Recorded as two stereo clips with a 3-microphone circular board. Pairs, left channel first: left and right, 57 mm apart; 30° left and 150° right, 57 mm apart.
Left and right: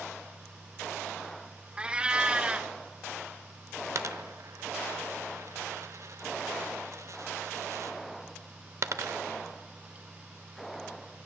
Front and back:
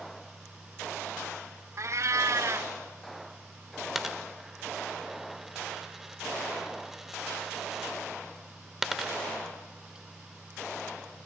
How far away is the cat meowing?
About 0.7 m.